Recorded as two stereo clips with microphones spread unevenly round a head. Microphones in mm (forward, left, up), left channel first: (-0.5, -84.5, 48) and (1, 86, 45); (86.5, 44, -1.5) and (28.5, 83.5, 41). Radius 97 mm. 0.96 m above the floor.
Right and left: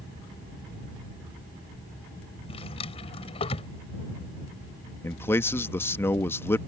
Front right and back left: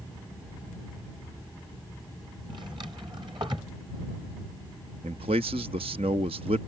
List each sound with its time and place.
2.5 s a drawer: 150° right
5.0 s a man speaking: 170° right